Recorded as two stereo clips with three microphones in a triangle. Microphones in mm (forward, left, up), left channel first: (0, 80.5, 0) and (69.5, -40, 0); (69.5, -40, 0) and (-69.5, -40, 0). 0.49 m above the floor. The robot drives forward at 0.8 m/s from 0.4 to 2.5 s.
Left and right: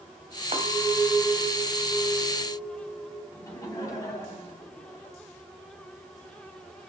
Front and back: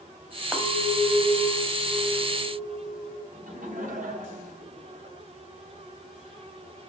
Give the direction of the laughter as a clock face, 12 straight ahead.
6 o'clock.